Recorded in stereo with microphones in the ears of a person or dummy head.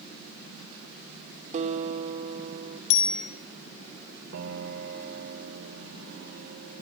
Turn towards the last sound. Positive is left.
turn(degrees=-60)  # may be behind; listen again after turning